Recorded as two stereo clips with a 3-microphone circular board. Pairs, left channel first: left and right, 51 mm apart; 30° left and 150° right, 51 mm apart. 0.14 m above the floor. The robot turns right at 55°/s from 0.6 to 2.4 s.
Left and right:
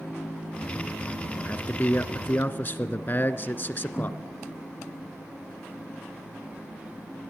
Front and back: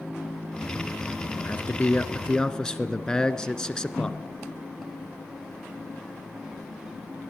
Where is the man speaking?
40° left, 1.4 m; by 4.2 s 95° left, 1.4 m.